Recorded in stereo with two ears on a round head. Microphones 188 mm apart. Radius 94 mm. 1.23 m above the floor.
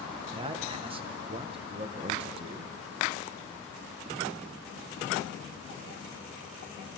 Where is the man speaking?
25° right (ahead or behind), 1.2 m.